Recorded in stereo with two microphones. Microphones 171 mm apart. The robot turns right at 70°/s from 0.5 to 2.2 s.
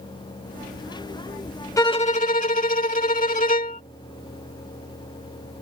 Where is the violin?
20° left; by 3.8 s 50° left.